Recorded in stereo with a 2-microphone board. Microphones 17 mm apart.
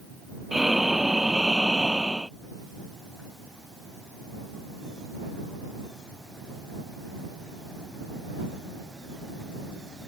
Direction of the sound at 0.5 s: 10° right (ahead or behind).